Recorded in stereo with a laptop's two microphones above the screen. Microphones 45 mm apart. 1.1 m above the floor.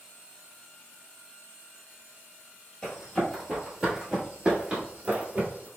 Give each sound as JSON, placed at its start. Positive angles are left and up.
{"t": 2.8, "sound": "running footsteps", "side_deg": 10, "distance_m": 1.3}